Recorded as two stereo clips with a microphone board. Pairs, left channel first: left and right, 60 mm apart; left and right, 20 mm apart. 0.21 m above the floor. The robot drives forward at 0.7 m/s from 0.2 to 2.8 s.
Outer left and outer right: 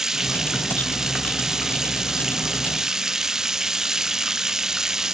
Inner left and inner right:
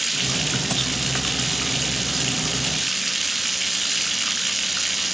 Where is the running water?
5° right (ahead or behind); by 5.2 s 10° right (ahead or behind).